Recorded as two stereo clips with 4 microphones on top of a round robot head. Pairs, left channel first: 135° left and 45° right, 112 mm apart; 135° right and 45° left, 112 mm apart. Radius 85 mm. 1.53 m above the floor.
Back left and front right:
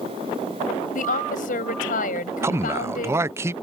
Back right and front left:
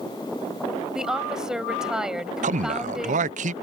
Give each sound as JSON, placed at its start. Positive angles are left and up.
{"t": 0.9, "sound": "a woman speaking", "azimuth_deg": 130}
{"t": 2.4, "sound": "a man speaking", "azimuth_deg": 25}